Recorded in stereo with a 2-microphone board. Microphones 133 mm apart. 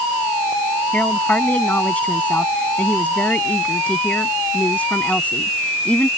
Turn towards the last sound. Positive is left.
turn(degrees=10)  # may be behind; listen again after turning